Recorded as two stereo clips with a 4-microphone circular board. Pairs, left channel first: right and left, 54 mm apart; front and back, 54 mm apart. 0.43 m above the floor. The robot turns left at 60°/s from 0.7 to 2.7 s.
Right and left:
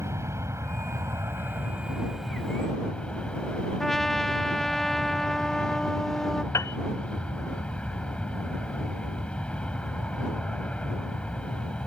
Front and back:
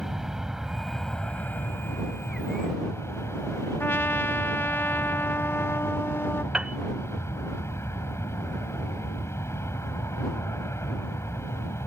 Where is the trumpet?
10° right.